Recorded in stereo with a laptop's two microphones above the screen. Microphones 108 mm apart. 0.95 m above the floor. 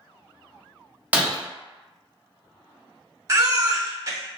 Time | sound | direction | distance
1.1 | breaking glass | 15° right (ahead or behind) | 0.6 m
3.3 | a baby crying | 35° right (ahead or behind) | 0.8 m